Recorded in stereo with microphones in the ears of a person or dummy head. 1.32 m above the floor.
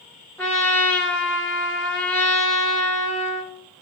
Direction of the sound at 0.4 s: 5° left (ahead or behind).